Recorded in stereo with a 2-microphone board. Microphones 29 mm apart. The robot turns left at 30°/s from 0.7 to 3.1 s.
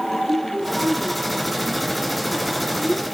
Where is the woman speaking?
90° right, 9 m; by 3.0 s 160° right, 9 m.